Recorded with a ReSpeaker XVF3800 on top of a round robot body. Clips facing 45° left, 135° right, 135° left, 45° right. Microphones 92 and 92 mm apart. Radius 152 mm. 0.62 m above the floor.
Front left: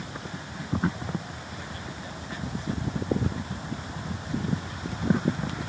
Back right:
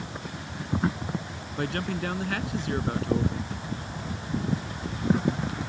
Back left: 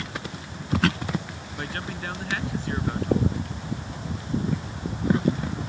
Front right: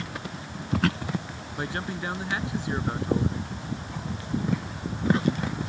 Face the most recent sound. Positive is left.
turn(degrees=-115)